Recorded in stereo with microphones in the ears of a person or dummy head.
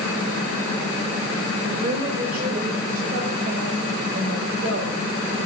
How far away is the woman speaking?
About 6 m.